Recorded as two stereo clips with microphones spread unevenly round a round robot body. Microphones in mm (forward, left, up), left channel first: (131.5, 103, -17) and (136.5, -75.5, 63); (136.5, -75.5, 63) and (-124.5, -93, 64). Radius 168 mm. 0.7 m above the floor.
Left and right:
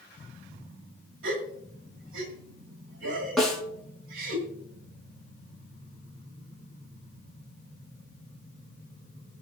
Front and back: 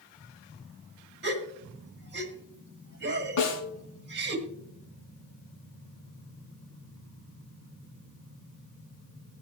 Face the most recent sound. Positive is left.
turn(degrees=5)